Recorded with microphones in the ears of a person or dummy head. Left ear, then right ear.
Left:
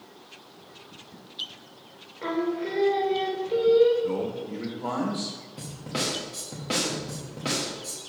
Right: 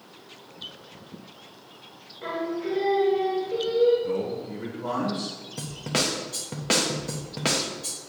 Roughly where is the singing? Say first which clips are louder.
Left 1 dB; left.